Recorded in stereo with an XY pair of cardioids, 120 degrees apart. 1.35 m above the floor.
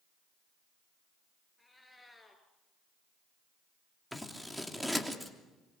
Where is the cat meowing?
5° left, 4.5 m.